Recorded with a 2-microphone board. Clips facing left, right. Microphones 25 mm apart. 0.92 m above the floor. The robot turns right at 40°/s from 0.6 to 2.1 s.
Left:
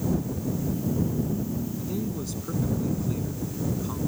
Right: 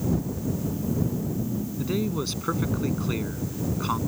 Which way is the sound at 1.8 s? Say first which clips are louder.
Right 4 dB; 45° right (ahead or behind).